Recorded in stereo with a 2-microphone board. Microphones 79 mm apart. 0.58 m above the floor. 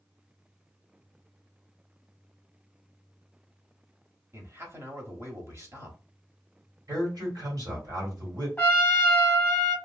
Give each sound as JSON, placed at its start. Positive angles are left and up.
{"t": 4.3, "sound": "a man speaking", "side_deg": -35, "distance_m": 0.9}
{"t": 6.9, "sound": "a man speaking", "side_deg": -50, "distance_m": 1.7}
{"t": 8.6, "sound": "a trumpet", "side_deg": 20, "distance_m": 0.9}